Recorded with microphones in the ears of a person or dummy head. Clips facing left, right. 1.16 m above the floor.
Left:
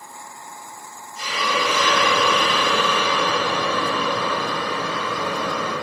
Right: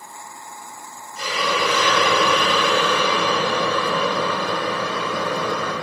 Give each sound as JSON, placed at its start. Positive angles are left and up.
{"t": 1.2, "sound": "a hiss", "side_deg": -60, "distance_m": 3.5}